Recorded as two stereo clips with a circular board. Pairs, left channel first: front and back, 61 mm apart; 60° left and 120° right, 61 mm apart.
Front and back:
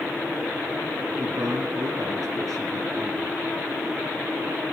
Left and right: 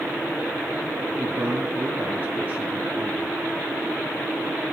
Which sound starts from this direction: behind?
A man speaking, at 1.2 s.